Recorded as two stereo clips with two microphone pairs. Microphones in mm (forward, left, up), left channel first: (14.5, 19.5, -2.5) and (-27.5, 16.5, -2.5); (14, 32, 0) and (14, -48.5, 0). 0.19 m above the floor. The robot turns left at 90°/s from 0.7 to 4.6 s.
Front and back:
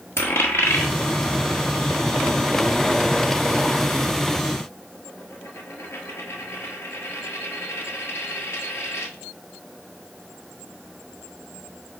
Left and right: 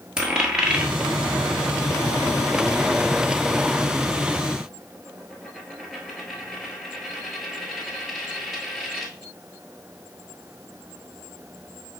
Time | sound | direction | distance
0.2 | a dropped coin | 10° right | 1.0 m